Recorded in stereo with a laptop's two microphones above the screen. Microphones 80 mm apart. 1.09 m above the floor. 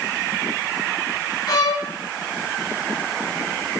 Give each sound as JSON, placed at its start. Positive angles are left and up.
{"t": 1.5, "sound": "a violin", "side_deg": 65, "distance_m": 3.0}